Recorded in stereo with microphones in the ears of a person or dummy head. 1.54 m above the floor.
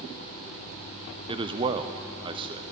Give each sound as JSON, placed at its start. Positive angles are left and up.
{"t": 1.3, "sound": "a man speaking", "side_deg": -30, "distance_m": 0.7}